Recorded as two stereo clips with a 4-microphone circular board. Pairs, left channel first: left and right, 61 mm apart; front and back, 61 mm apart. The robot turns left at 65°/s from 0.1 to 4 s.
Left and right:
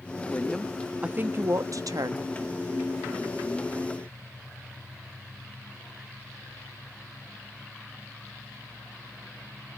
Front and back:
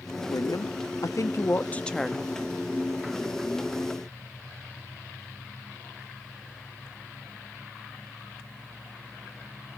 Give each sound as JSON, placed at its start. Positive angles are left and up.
{"t": 0.3, "sound": "a woman speaking", "azimuth_deg": 30, "distance_m": 0.9}